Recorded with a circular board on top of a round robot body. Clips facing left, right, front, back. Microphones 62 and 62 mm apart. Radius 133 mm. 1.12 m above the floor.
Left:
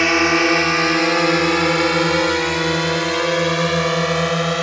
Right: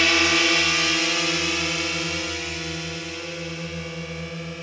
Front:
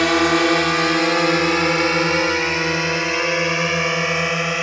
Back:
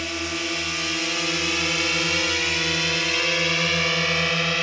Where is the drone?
25° left; by 4.6 s 70° left.